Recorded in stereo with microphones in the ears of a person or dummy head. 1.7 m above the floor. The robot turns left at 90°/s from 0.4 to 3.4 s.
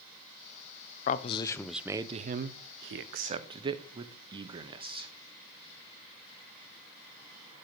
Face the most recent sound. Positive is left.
turn(degrees=-25)  # may be behind; listen again after turning